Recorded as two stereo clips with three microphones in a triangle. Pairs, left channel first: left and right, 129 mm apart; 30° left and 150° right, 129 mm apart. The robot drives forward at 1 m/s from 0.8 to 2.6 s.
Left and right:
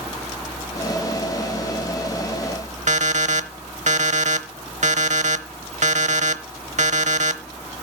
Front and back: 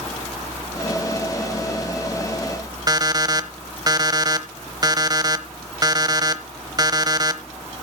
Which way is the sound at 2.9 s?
95° right.